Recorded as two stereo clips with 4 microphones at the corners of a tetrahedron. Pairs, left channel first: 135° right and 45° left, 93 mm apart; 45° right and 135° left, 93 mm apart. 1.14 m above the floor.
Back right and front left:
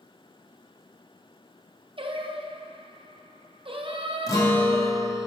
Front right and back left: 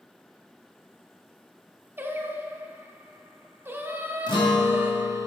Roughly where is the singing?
Left.